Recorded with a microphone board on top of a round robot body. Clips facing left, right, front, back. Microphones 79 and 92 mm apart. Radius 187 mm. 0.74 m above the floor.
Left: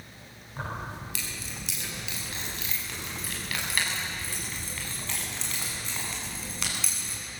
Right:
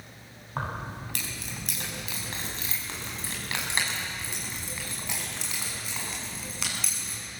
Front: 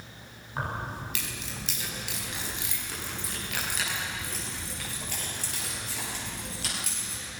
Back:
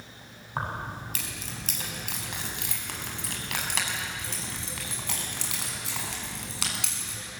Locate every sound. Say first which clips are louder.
0.6 s keys jangling: right 2 dB, back 1 dB; 125° right, 5.5 m; by 7.2 s straight behind, 7 m